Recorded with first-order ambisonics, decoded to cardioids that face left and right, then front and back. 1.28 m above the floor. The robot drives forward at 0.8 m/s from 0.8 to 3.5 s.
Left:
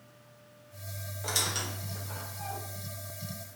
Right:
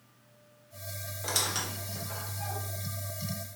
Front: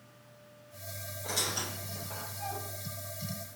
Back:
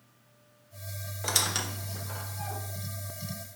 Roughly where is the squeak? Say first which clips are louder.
Even, back 5 dB; behind.